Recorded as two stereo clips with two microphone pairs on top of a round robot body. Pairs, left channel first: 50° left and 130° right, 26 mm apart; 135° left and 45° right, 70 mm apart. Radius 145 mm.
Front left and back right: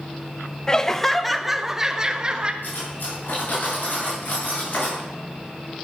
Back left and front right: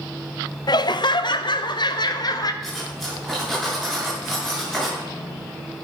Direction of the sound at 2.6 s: 40° left.